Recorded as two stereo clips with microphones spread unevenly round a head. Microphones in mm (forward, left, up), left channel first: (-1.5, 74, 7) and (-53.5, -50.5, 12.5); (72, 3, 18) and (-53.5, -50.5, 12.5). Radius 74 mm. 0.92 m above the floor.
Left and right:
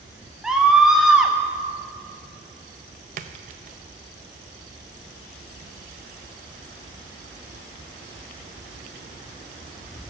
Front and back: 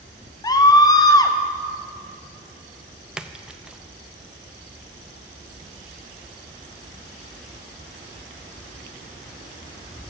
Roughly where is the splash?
Right.